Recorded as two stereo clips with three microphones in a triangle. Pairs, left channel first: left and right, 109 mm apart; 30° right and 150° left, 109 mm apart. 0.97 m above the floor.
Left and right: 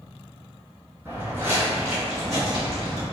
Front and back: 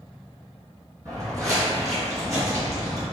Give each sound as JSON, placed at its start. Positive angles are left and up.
{"t": 1.1, "sound": "footsteps", "azimuth_deg": -155, "distance_m": 1.6}